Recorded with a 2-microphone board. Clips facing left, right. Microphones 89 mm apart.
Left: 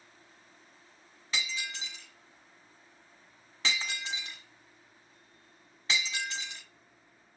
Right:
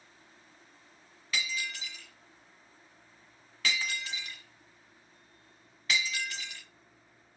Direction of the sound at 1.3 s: 25° left (ahead or behind).